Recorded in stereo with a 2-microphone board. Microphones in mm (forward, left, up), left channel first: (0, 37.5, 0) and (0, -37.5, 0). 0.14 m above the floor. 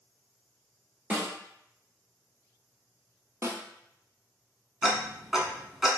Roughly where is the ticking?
Centre.